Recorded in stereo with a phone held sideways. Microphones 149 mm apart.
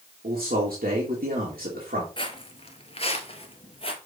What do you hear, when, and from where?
0.2 s a man speaking: 75° right (ahead or behind), 2.5 m
2.2 s footsteps: 35° left (ahead or behind), 1.4 m